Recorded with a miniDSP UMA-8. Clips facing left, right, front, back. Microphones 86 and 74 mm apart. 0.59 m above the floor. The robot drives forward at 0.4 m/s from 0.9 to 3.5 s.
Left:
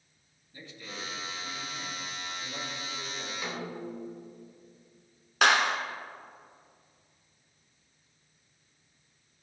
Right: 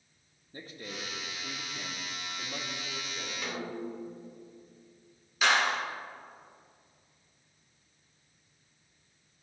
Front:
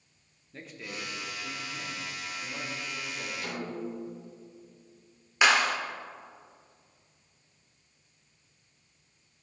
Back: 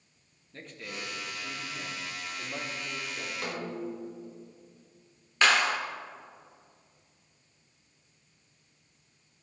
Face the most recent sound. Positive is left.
turn(degrees=80)